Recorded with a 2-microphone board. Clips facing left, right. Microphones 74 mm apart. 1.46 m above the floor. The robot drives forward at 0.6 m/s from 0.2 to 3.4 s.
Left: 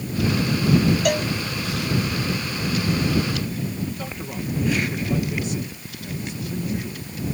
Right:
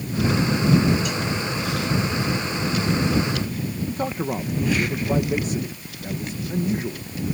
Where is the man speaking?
40° right (ahead or behind).